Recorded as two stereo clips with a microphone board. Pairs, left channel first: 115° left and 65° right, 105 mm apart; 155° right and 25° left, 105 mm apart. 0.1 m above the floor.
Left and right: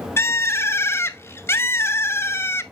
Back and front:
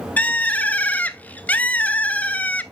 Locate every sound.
0.2 s a bird: 145° left, 0.6 m